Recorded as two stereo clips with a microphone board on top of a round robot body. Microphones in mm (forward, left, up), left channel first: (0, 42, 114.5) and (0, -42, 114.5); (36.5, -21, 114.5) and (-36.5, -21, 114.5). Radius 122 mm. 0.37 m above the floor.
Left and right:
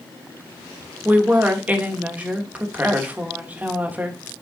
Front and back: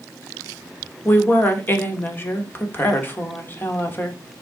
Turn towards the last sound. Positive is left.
turn(degrees=-35)